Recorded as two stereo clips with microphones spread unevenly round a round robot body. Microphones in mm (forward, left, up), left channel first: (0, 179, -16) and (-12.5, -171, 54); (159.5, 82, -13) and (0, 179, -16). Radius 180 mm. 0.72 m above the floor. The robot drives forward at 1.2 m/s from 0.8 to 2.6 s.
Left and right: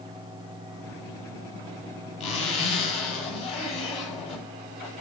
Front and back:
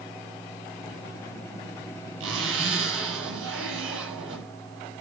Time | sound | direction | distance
2.2 | a zipper | 160° left | 9 m